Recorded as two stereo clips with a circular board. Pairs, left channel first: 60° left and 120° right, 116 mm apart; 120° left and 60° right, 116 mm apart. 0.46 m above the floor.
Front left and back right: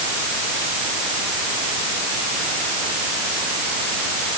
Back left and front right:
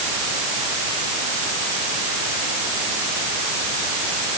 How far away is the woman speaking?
I don't hear a woman speaking.